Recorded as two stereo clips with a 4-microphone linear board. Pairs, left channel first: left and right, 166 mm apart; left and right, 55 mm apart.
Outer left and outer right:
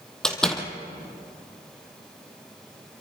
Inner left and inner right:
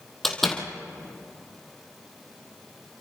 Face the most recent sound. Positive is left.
turn(degrees=5)  # may be behind; listen again after turning